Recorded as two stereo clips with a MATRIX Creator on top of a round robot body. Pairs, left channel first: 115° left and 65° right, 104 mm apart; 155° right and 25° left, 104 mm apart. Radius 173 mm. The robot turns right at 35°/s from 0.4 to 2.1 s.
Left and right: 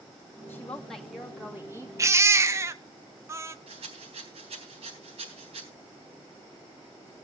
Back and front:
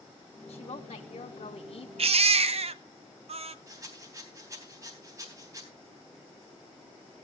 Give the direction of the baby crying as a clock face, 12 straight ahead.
12 o'clock.